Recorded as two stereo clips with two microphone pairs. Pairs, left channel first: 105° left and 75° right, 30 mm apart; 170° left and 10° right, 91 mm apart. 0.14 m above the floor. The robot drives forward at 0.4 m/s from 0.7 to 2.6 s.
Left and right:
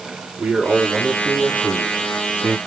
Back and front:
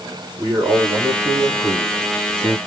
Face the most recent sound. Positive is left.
turn(degrees=-65)